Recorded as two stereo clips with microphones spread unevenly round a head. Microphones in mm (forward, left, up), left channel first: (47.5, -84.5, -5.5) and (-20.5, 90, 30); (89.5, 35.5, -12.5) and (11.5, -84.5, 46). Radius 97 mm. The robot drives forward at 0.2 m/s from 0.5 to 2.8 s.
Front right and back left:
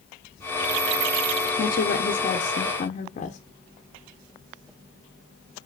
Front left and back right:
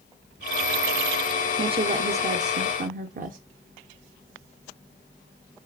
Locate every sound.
1.6 s a woman speaking: 60° right, 0.5 m; by 3.4 s 90° right, 0.5 m